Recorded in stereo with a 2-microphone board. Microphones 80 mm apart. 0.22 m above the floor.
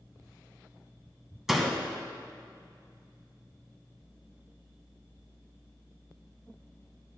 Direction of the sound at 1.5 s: 5° right (ahead or behind).